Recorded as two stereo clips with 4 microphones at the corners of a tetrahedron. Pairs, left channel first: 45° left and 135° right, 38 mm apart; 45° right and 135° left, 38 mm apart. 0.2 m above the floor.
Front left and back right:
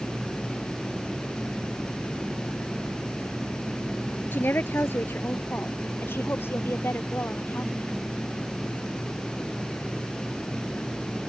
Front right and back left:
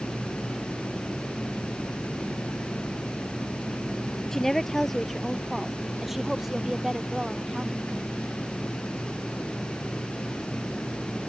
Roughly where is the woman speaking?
Ahead left.